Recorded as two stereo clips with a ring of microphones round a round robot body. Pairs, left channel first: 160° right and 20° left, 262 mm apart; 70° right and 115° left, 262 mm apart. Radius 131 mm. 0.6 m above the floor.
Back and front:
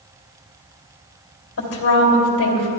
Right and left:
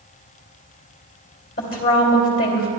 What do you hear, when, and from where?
1.6 s a woman speaking: 120° right, 3 m